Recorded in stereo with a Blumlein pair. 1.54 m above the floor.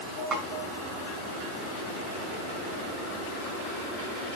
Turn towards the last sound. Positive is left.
turn(degrees=-15)